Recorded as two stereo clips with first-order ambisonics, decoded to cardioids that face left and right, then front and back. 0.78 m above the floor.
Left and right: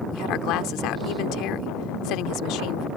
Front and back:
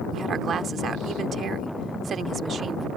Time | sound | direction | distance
0.1 | a woman speaking | 120° left | ?